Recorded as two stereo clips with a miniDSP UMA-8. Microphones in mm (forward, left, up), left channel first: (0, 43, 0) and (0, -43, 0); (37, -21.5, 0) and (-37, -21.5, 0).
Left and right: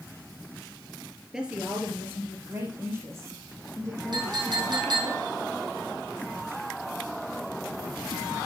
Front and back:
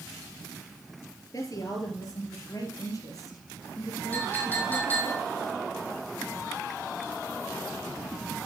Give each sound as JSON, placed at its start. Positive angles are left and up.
{"t": 1.3, "sound": "a woman speaking", "azimuth_deg": -10, "distance_m": 2.0}
{"t": 4.1, "sound": "a clink", "azimuth_deg": -65, "distance_m": 3.0}